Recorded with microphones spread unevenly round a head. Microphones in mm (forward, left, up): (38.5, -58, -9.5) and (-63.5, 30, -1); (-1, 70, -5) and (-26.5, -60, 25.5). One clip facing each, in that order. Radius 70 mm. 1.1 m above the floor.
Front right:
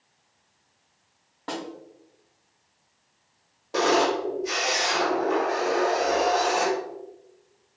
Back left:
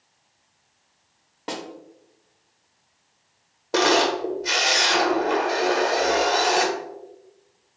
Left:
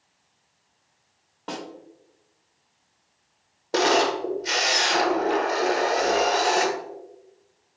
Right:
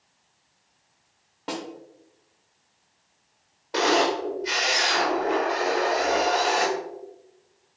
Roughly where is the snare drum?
Behind.